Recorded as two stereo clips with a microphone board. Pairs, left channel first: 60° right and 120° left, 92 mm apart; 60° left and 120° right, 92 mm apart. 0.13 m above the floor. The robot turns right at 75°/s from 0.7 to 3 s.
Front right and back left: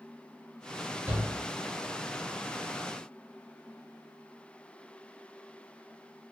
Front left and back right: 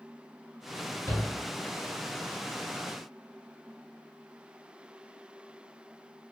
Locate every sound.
1.1 s a shout: 100° left, 1.1 m; by 1.3 s 115° left, 1.1 m